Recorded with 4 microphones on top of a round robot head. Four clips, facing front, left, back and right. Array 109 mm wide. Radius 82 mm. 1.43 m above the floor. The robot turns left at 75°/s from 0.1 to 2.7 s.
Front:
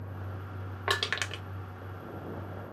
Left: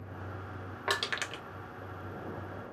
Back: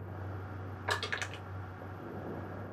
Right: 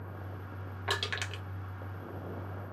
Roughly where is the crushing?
Ahead left.